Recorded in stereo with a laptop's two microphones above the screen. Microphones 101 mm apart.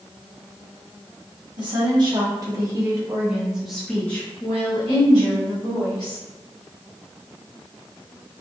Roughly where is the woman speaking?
Right.